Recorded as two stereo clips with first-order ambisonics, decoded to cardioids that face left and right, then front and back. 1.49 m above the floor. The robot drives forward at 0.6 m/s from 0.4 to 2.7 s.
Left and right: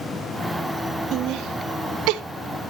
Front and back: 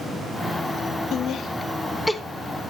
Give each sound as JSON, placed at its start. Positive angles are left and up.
{"t": 1.1, "sound": "laughter", "azimuth_deg": -50, "distance_m": 1.0}